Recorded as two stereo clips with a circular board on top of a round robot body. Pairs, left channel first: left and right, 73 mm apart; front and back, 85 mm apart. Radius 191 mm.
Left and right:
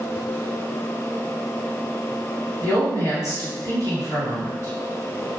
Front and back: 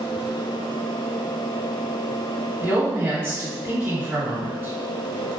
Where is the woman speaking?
120° left, 1.9 m.